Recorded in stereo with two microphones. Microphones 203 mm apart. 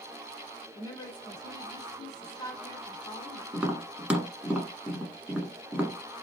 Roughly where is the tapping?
Centre.